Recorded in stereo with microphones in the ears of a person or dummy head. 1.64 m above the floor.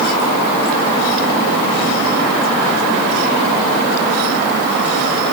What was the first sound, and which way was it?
Only background noise.